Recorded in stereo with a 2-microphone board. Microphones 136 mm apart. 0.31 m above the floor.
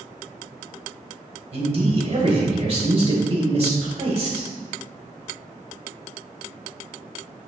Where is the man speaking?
40° right (ahead or behind), 1.2 m.